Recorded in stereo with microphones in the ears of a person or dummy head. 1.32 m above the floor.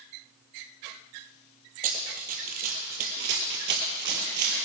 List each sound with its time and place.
1.8 s running footsteps: 45° right (ahead or behind), 2 m; by 4.7 s 40° right (ahead or behind), 1.9 m